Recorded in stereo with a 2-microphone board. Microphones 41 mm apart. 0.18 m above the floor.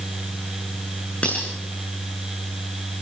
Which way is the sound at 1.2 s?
35° left (ahead or behind).